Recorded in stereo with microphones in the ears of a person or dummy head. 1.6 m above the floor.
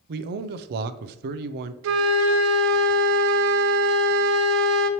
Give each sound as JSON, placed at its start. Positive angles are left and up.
{"t": 0.1, "sound": "a man speaking", "side_deg": -55, "distance_m": 0.6}
{"t": 1.8, "sound": "a flute", "side_deg": -75, "distance_m": 0.6}